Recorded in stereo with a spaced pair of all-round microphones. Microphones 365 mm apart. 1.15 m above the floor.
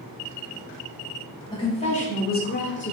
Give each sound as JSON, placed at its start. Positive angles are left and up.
{"t": 1.5, "sound": "a woman speaking", "side_deg": 10, "distance_m": 1.1}